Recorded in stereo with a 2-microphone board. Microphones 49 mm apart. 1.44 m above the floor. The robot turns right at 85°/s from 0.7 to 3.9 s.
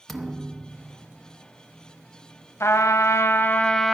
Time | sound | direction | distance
0.1 | a thud | centre (ahead or behind) | 0.8 m
2.6 | a trumpet | 65° left | 0.9 m